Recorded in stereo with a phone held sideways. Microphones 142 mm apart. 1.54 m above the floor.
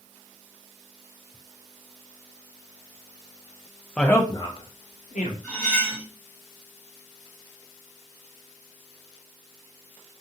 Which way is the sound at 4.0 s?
5° left (ahead or behind).